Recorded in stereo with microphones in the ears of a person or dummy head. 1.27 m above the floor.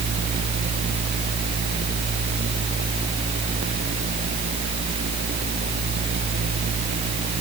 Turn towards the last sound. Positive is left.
No sound to turn to.